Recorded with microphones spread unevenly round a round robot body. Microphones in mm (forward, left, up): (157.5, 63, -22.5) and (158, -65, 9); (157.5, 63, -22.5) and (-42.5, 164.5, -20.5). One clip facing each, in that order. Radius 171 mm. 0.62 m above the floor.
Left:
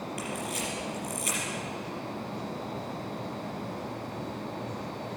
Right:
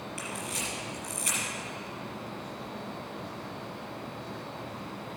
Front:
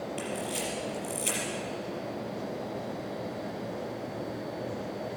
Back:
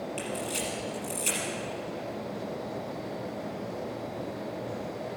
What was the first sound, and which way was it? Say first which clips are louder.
A camera shutter: left 4 dB, even; 150° right.